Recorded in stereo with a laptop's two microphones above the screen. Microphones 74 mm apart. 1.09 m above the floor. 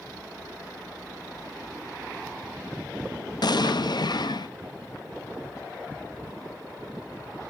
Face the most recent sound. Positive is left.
turn(degrees=65)  # may be behind; listen again after turning